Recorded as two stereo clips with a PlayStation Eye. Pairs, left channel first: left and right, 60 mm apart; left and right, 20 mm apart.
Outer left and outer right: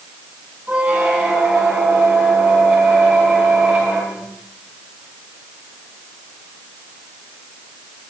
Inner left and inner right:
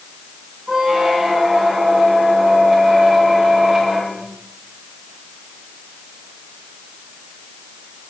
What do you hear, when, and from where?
0.7 s a squeak: 20° right (ahead or behind), 5 m